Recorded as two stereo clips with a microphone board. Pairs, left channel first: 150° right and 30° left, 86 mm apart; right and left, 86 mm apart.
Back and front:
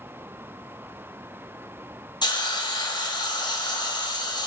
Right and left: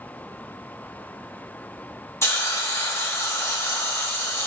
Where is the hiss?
145° right, 0.6 m.